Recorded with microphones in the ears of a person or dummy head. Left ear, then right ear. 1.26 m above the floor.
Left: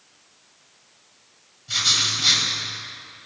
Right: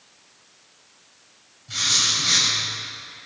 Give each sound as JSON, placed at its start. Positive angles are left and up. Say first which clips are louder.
{"t": 1.7, "sound": "writing", "louder": "left 1 dB", "side_deg": 35, "distance_m": 7.5}